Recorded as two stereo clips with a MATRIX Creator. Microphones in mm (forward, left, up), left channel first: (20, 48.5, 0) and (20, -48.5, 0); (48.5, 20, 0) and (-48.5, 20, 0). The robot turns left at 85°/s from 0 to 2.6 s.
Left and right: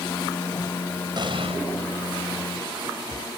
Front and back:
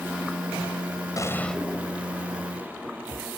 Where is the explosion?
50° right; by 1.6 s 90° right.